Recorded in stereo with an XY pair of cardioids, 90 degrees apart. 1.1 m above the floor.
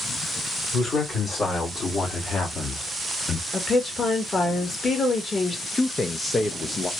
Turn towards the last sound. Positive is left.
turn(degrees=30)